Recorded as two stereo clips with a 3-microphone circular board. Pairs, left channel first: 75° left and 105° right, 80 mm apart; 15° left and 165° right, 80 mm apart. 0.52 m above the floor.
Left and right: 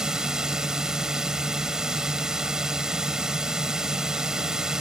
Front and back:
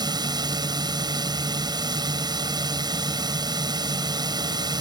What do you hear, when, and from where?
0.0 s a drone: 175° left